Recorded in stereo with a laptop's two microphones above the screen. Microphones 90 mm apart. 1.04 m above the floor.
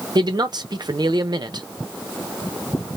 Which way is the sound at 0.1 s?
55° right (ahead or behind).